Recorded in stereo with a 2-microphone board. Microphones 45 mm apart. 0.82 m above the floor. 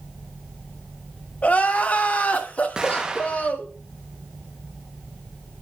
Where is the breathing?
I don't hear breathing.